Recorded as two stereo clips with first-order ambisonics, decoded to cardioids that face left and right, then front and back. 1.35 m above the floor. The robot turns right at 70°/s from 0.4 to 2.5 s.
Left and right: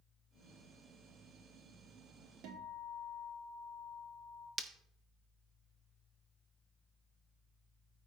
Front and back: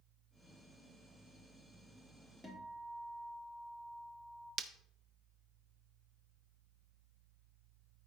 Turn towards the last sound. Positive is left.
turn(degrees=-150)